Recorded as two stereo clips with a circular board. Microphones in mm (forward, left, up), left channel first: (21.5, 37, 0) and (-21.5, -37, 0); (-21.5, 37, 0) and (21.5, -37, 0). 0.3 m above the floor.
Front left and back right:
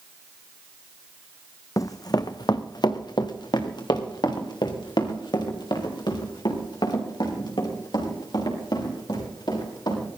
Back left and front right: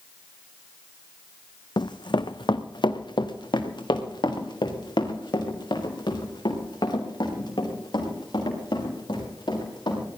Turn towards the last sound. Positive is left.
turn(degrees=90)